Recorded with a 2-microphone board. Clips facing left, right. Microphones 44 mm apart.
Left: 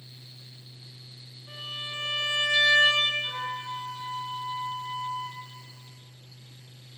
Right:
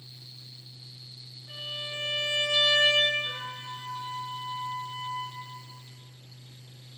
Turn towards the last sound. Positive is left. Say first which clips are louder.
# left 3 dB
turn(degrees=55)  # may be behind; listen again after turning